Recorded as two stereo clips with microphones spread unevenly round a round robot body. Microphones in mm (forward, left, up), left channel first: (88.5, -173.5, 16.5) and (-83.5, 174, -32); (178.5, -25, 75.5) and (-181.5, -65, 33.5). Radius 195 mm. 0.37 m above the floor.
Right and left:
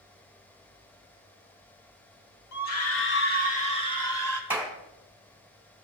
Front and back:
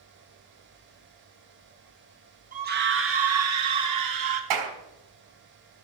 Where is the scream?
110° right, 2 m; by 4.4 s 150° right, 3.5 m.